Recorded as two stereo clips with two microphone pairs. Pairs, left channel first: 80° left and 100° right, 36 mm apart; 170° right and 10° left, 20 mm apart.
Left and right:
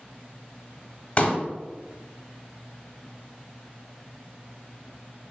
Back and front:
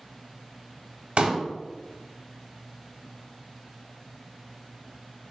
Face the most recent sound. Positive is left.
turn(degrees=20)